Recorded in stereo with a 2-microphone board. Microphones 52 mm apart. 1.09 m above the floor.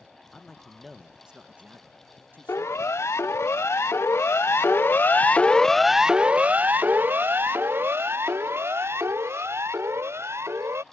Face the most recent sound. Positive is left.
turn(degrees=-65)  # may be behind; listen again after turning